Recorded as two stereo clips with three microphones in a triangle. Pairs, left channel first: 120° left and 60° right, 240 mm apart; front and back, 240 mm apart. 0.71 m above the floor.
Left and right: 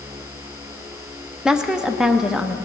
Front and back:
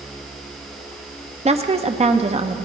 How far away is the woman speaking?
About 0.6 m.